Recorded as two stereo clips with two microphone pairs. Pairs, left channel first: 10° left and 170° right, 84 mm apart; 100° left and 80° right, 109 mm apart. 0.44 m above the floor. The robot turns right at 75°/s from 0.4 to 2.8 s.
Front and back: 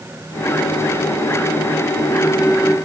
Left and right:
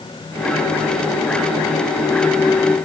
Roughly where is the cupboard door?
I don't hear a cupboard door.